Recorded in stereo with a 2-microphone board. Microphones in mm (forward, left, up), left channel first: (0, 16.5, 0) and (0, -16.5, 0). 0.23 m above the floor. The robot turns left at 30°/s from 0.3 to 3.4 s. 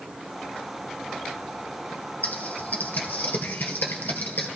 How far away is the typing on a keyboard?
About 2 m.